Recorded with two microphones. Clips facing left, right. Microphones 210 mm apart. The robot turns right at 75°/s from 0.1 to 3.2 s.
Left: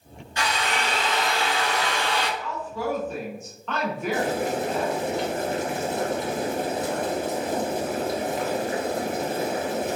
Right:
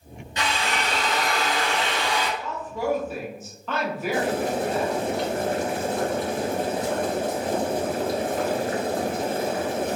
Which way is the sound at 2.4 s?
25° right (ahead or behind).